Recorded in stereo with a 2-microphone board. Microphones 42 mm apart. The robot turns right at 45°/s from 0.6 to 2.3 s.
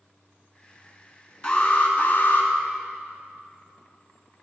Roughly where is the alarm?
Ahead left.